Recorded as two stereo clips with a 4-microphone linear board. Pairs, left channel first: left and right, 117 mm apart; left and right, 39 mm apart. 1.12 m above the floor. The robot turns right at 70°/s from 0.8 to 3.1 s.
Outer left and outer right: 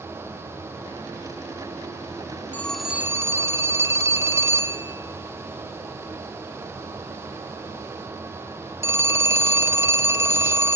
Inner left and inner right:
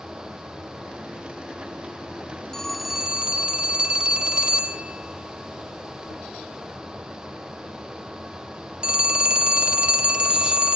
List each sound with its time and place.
2.5 s a phone ringing: 165° left, 1.1 m; by 10.8 s 155° right, 1.1 m